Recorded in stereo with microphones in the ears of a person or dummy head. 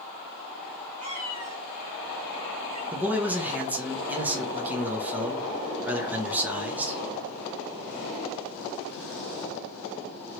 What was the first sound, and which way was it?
A cat meowing, 45° right (ahead or behind).